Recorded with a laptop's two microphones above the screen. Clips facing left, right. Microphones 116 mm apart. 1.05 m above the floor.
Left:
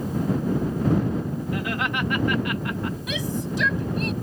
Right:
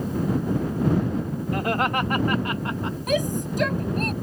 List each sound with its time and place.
1.5 s laughter: 45° right (ahead or behind); by 3.0 s 25° right (ahead or behind)
3.1 s a shout: 45° right (ahead or behind)